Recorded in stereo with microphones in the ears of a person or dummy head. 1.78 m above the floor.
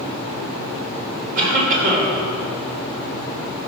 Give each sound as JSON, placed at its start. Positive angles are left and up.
{"t": 1.4, "sound": "a cough", "side_deg": -45, "distance_m": 5.5}